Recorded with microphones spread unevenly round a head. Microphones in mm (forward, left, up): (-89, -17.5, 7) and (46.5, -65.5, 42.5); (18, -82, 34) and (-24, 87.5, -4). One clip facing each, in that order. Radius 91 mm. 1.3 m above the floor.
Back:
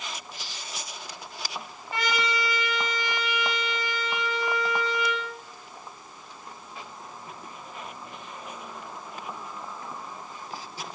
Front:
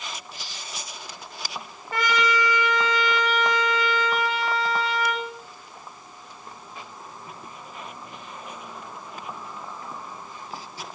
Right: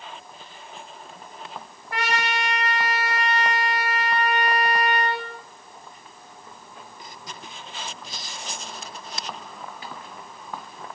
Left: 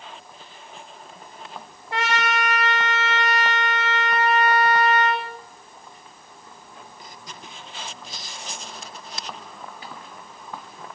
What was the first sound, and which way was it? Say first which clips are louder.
A trumpet: front 5 dB, left 2 dB; 35° left.